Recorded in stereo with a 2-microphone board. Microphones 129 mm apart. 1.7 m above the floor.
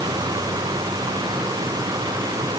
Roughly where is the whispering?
I don't hear whispering.